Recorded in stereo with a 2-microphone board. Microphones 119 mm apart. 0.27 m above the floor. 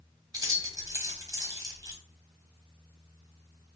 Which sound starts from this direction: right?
Keys jangling, at 0.3 s.